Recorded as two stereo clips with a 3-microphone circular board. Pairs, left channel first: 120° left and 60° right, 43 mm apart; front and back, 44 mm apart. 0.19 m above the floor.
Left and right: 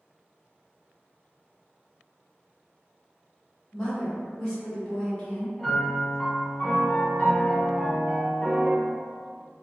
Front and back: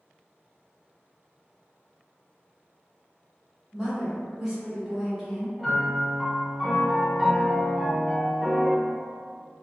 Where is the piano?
75° left, 1.0 m.